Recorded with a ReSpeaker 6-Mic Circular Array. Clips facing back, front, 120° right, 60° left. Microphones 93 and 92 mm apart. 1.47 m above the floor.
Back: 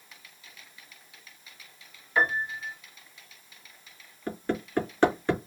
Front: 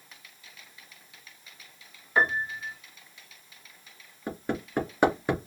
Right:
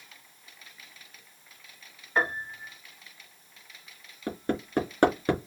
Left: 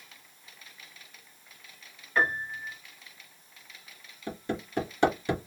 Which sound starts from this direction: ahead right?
A piano, at 2.2 s.